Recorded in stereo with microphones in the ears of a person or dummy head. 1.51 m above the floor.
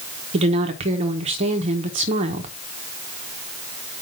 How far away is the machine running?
I don't hear a machine running.